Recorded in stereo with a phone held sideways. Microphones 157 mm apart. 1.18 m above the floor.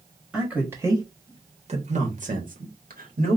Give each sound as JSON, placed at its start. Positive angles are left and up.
{"t": 0.3, "sound": "a man speaking", "side_deg": -5, "distance_m": 1.2}